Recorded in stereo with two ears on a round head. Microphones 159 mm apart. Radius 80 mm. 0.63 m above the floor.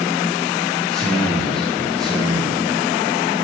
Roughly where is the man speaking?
Centre.